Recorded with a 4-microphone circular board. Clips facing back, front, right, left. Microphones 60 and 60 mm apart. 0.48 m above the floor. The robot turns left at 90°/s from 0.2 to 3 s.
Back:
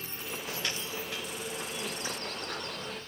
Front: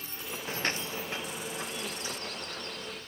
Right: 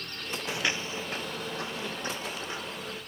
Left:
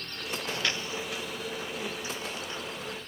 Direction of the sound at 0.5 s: 25° right.